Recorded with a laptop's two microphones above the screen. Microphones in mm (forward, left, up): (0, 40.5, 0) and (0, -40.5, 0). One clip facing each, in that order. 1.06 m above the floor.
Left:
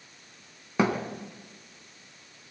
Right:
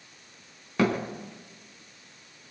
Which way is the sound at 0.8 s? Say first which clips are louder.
Even; 15° left (ahead or behind).